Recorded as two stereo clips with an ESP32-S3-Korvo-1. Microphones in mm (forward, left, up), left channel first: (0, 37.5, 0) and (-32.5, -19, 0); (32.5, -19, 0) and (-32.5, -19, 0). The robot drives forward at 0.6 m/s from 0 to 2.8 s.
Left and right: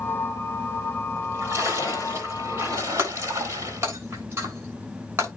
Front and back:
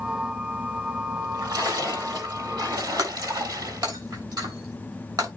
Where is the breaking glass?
175° right, 7 m.